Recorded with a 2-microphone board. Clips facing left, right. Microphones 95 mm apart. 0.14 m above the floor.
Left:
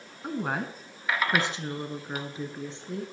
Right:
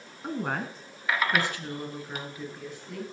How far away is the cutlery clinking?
I don't hear cutlery clinking.